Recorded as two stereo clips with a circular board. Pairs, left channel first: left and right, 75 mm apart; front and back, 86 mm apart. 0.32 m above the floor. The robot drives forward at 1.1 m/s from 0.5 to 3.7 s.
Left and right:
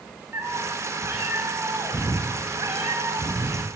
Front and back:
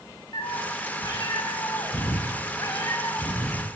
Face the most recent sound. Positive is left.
turn(degrees=-65)